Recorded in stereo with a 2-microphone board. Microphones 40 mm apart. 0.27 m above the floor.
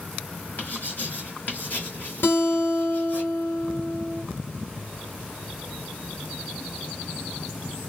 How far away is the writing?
About 1.8 m.